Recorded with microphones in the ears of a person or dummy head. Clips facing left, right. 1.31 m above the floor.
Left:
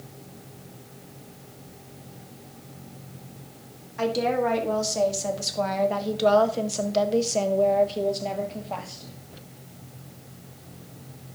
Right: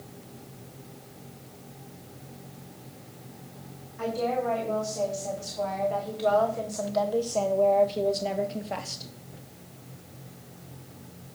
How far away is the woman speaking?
About 3.5 m.